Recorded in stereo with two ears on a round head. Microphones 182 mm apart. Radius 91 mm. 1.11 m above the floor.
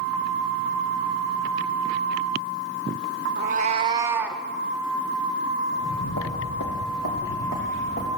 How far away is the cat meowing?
About 0.6 m.